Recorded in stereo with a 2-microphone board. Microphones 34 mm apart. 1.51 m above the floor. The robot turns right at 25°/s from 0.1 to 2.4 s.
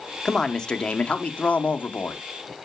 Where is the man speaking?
10° left, 1.0 m; by 2.2 s 60° left, 1.0 m.